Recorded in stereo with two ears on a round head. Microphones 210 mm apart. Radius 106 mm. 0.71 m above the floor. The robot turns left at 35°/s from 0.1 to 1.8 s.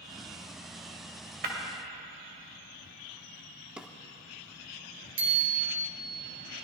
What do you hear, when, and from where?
1.4 s breaking glass: 45° right (ahead or behind), 2.0 m; by 1.6 s 40° right (ahead or behind), 2.0 m
3.8 s a drawer: 5° right (ahead or behind), 0.7 m
5.2 s a bicycle bell: 25° right (ahead or behind), 3.5 m